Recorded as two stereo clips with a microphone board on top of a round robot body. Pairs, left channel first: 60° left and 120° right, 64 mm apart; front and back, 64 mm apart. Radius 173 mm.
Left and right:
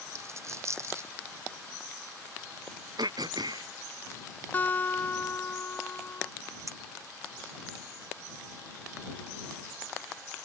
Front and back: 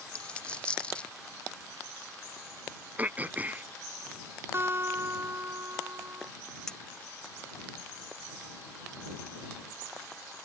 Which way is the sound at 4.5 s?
125° left.